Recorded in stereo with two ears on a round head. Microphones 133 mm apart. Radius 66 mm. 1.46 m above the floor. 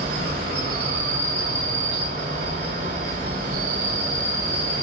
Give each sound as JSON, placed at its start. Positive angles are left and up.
{"t": 0.0, "sound": "an insect", "side_deg": -60, "distance_m": 1.8}